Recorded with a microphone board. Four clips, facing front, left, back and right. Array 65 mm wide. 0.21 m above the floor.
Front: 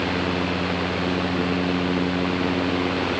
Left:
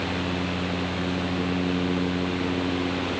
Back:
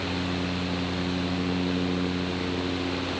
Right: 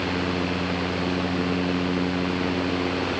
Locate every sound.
Only background noise.